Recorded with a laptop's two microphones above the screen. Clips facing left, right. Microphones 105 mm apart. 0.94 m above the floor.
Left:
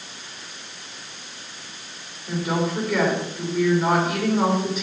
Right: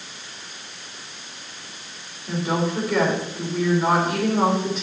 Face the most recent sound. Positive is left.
turn(degrees=5)  # may be behind; listen again after turning